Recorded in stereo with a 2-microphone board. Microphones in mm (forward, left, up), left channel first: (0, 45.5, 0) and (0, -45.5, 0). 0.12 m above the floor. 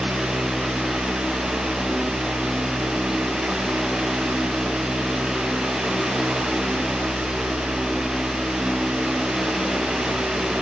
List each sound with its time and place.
Only background noise.